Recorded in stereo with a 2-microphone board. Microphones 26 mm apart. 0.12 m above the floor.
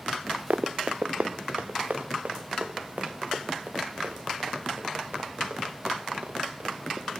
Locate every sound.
0.5 s running footsteps: 85° right, 0.8 m; by 7.1 s 75° right (ahead or behind), 6.5 m